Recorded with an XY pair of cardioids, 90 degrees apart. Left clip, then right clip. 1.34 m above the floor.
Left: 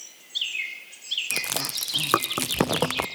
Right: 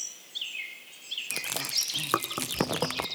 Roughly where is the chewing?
Ahead left.